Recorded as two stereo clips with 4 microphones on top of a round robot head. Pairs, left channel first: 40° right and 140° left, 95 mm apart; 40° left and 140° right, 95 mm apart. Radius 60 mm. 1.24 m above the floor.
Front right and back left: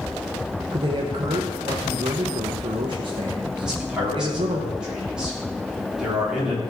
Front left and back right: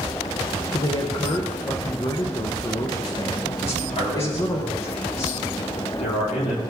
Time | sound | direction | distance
0.7 | a man speaking | 95° left | 0.9 m
3.6 | a man speaking | 55° left | 3.5 m